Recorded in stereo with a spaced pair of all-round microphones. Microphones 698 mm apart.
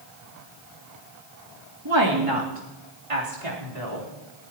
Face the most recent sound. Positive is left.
turn(degrees=-80)